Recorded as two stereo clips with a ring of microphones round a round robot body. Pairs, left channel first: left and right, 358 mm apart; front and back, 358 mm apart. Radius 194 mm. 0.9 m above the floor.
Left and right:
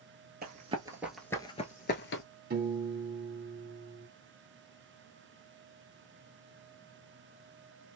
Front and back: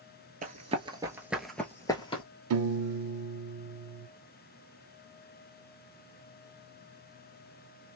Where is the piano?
155° right, 0.6 m.